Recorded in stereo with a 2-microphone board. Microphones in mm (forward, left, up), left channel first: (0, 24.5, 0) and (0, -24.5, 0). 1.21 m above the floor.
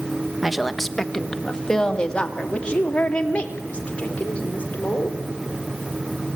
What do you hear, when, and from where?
0.4 s a woman speaking: 5° right (ahead or behind), 1.1 m; by 5.2 s 30° left (ahead or behind), 4.5 m